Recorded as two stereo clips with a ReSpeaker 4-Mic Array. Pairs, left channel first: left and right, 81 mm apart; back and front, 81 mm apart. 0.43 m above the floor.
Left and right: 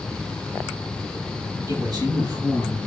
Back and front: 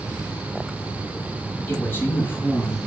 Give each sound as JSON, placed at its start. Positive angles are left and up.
{"t": 1.7, "sound": "a man speaking", "azimuth_deg": -120, "distance_m": 3.0}